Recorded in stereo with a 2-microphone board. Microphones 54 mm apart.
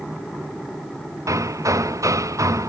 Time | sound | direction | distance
1.3 | hammering | 75° right (ahead or behind) | ?